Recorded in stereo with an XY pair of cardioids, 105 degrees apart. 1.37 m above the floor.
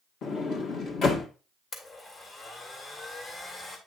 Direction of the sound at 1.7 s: 45° left.